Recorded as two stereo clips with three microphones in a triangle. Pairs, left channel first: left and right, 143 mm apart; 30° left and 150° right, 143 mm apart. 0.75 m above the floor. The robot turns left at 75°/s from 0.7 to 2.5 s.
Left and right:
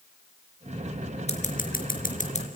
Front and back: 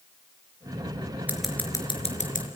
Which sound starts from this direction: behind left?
Scissors, at 1.3 s.